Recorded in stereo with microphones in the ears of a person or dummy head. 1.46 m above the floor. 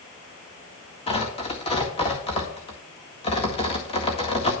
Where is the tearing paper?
30° left (ahead or behind), 1.9 m.